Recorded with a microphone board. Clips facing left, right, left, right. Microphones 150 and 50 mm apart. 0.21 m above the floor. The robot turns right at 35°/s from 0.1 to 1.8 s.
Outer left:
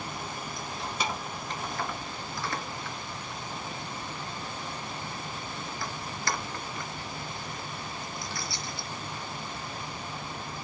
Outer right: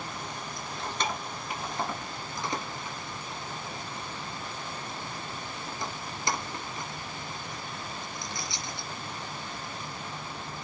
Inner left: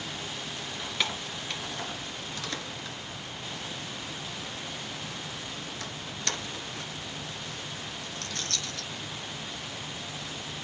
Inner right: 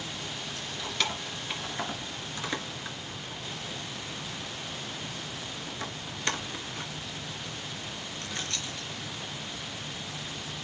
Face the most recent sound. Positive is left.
turn(degrees=-20)  # may be behind; listen again after turning